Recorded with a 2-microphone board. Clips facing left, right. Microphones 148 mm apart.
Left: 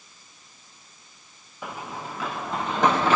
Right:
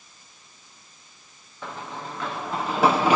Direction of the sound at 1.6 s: 10° left (ahead or behind).